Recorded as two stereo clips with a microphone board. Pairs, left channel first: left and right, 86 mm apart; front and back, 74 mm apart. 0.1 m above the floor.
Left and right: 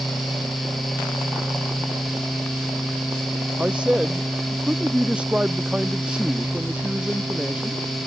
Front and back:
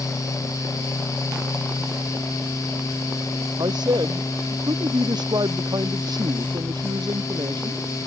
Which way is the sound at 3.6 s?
165° right.